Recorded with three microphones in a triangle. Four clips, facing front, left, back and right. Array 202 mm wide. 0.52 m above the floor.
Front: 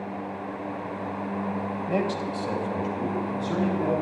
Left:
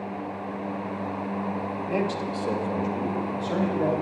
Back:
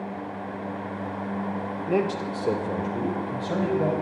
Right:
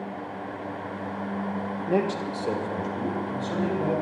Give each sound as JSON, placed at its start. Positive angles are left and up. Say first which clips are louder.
{"t": 1.9, "sound": "a man speaking", "louder": "right 3 dB, back 3 dB", "azimuth_deg": -135, "distance_m": 1.6}